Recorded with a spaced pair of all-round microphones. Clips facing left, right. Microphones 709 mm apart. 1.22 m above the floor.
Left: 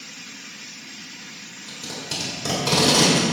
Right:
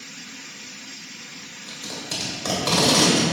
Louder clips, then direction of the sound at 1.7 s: Even; 55° left (ahead or behind).